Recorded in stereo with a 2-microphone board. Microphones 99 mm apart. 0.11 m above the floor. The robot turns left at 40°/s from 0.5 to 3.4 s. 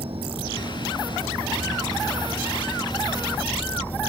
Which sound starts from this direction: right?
An insect, at 0.0 s.